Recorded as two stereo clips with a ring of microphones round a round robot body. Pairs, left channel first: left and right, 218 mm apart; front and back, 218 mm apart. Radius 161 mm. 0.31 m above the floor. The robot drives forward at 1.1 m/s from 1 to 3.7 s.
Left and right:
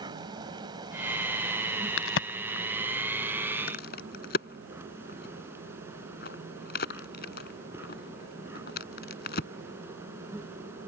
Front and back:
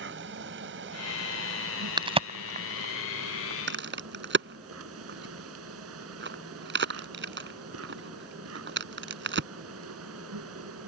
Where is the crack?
110° left; by 9.5 s 145° left.